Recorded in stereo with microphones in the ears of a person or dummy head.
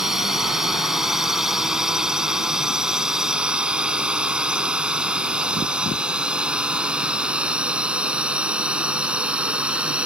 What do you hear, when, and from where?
0.0 s a drone: centre (ahead or behind); by 10.1 s 5° right (ahead or behind)